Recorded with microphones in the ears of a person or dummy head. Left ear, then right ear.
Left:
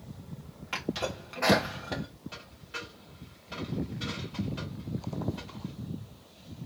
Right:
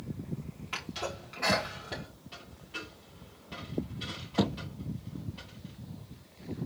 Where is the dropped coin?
25° left (ahead or behind), 3 m.